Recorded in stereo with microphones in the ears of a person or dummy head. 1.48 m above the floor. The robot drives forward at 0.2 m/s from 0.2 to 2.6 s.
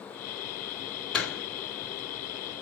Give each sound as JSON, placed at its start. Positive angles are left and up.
{"t": 1.1, "sound": "a door slam", "side_deg": 5, "distance_m": 2.0}